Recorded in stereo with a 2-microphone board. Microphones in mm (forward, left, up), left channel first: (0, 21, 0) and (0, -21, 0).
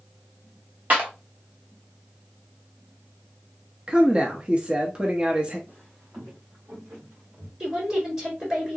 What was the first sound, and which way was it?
A clap, 40° right (ahead or behind).